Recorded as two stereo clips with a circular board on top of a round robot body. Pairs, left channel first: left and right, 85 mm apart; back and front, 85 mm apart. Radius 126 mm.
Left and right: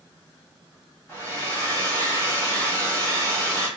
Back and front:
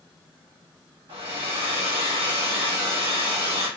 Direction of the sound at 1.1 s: 20° left.